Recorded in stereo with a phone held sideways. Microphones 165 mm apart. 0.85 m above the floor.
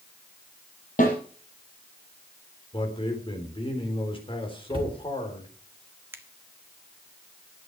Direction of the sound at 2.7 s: 35° left (ahead or behind).